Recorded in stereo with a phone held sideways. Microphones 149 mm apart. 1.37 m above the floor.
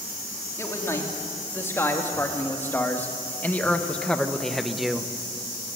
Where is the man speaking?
20° left (ahead or behind), 3.5 m; by 5.1 s 5° right (ahead or behind), 0.9 m.